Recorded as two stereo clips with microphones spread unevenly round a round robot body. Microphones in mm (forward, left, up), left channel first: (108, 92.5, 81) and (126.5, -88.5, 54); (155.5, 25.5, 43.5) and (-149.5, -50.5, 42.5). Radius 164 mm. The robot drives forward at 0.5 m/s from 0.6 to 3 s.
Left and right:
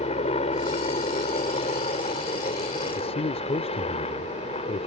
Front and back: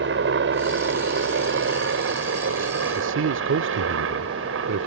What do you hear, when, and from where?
0.0 s a helicopter: 150° left; by 4.9 s 155° left
3.0 s a man speaking: 155° left